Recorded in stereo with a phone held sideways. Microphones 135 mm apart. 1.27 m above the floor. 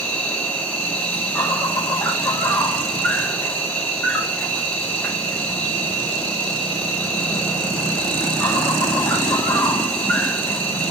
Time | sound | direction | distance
0.0 | an insect | 10° left (ahead or behind) | 1.3 m